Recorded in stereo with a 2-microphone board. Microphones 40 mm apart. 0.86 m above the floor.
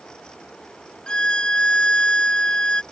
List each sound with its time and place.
1.1 s a violin: 20° left (ahead or behind)